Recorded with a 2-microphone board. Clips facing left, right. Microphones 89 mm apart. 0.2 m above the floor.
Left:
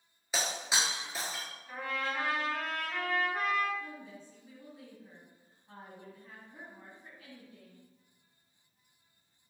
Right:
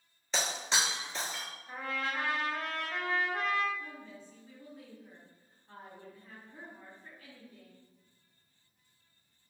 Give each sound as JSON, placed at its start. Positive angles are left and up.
{"t": 0.3, "sound": "breaking glass", "side_deg": 5, "distance_m": 0.8}
{"t": 1.7, "sound": "a trumpet", "side_deg": -20, "distance_m": 1.2}
{"t": 3.7, "sound": "a woman speaking", "side_deg": 15, "distance_m": 1.2}